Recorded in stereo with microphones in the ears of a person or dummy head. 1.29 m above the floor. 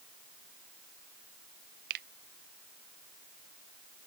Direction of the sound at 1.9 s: 55° right (ahead or behind).